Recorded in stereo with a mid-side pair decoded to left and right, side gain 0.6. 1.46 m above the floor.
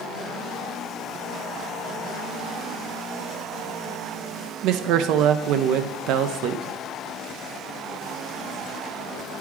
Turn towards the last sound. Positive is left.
turn(degrees=-65)